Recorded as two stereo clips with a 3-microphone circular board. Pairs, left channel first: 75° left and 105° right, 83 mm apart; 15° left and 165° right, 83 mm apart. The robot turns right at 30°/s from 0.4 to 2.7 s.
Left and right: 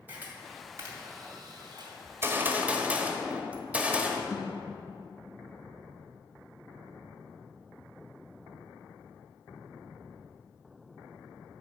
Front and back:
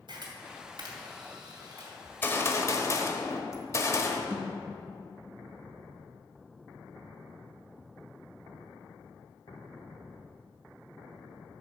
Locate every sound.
0.1 s a camera shutter: 170° right, 2.5 m; by 1.9 s 125° right, 2.5 m
2.0 s a gunshot: 55° right, 1.2 m; by 4.2 s 35° right, 1.2 m
4.3 s a thud: 125° left, 3 m